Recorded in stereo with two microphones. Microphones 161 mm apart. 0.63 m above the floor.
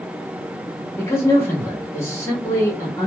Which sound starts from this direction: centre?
A man speaking, at 1.0 s.